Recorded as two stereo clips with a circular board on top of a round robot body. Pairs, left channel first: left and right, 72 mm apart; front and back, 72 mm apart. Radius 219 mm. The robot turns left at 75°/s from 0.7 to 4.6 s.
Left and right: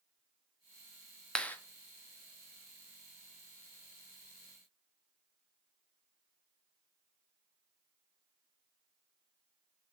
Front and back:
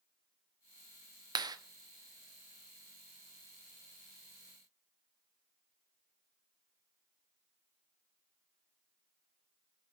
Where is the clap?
170° left, 1.0 m; by 1.6 s 150° left, 1.0 m.